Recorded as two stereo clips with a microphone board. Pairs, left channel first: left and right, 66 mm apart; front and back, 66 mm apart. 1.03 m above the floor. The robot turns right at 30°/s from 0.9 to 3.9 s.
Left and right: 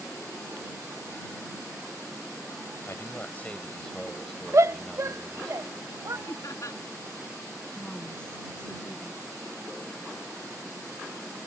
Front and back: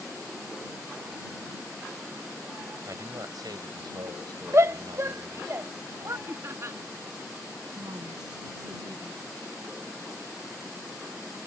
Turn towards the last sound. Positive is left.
turn(degrees=170)